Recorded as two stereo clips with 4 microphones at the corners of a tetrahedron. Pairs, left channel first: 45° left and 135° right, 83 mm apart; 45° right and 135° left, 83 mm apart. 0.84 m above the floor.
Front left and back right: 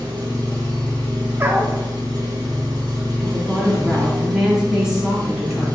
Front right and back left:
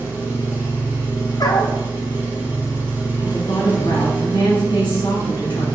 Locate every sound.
0.0 s an engine running: 160° right, 1.6 m
1.4 s a dog barking: 75° right, 0.5 m
3.2 s a woman speaking: 50° right, 1.8 m